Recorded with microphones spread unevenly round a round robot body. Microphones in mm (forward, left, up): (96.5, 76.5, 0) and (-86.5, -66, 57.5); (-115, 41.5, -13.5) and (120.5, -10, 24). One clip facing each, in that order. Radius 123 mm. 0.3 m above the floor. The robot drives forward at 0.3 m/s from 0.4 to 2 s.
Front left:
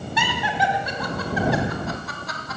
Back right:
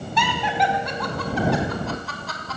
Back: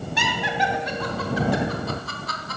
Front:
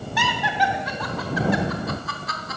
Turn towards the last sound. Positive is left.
turn(degrees=120)